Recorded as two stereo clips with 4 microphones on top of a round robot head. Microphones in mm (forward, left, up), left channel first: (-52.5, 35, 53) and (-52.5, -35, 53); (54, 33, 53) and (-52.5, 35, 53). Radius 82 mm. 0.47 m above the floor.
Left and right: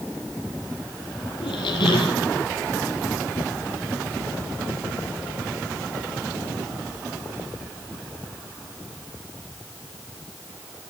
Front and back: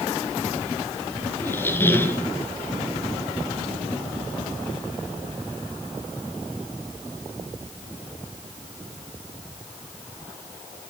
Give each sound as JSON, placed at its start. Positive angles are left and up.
{"t": 1.4, "sound": "a squeak", "azimuth_deg": 70, "distance_m": 2.0}